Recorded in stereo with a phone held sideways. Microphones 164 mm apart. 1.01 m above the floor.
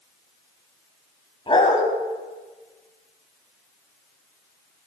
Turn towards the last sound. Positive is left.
turn(degrees=35)  # may be behind; listen again after turning